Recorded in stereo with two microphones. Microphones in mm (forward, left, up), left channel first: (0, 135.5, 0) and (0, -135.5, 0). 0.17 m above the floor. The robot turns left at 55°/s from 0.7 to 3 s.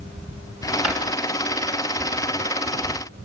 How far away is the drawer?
About 5.5 m.